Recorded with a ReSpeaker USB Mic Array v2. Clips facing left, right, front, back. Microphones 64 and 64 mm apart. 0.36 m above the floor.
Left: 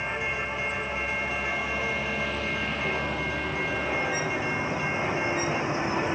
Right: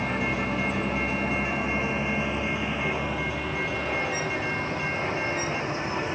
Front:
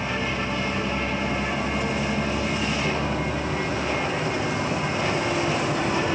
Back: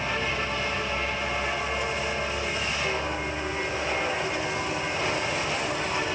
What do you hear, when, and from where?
0.0 s a vehicle: 75° right; by 6.1 s 25° left